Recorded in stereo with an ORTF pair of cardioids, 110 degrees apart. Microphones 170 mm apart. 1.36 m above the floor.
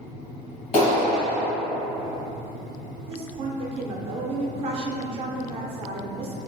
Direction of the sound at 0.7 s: 45° left.